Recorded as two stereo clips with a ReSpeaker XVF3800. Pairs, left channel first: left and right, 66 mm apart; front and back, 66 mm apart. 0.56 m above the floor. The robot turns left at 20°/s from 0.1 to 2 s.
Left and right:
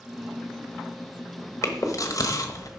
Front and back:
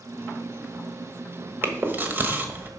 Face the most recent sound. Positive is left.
turn(degrees=120)